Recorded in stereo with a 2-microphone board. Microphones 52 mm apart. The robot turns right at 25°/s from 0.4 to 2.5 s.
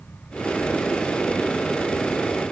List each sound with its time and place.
Only background noise.